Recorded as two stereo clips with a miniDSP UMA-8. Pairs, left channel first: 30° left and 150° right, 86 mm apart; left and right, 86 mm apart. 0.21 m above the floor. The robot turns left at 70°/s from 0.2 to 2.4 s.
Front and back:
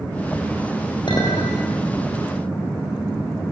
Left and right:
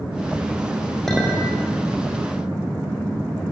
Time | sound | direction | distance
1.1 | a clink | 5° left | 7.5 m